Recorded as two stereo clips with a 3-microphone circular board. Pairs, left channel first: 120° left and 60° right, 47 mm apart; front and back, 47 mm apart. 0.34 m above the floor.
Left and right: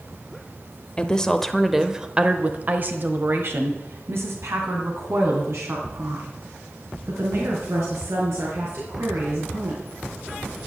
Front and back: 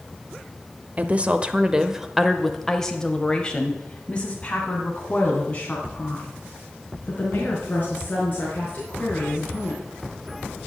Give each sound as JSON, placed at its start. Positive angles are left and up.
{"t": 1.0, "sound": "a woman speaking", "azimuth_deg": 165, "distance_m": 0.9}